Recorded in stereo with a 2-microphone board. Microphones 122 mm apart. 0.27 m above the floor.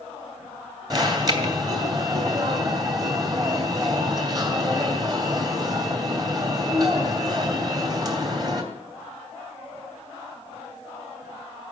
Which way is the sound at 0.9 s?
35° right (ahead or behind).